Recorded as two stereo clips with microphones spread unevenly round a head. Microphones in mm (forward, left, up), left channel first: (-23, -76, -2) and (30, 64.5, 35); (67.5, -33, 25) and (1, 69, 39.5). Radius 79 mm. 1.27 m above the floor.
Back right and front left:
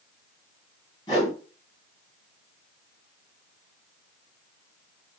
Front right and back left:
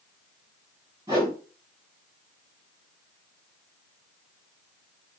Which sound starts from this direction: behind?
A whoosh, at 1.1 s.